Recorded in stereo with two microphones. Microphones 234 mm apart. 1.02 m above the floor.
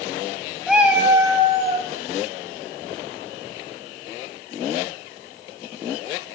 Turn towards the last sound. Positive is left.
turn(degrees=-25)  # may be behind; listen again after turning